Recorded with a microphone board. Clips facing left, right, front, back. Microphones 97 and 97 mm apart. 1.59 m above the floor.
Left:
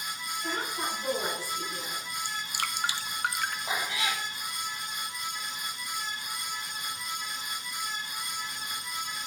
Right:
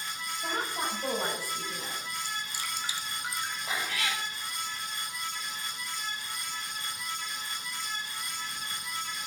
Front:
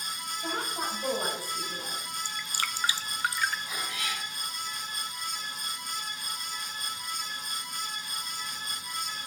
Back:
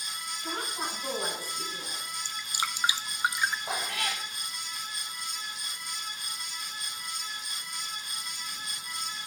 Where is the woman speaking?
45° right, 7.5 m.